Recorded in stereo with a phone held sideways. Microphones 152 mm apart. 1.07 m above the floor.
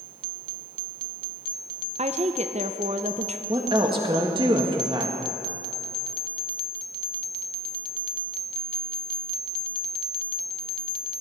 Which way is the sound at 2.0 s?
45° right (ahead or behind).